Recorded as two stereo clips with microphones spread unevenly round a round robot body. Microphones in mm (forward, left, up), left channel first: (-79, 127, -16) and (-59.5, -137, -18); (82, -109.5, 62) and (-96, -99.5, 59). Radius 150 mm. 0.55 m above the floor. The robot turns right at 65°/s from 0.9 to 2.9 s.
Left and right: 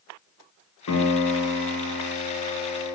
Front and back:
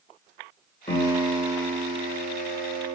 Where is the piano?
60° left, 0.7 m; by 3.0 s 170° right, 0.7 m.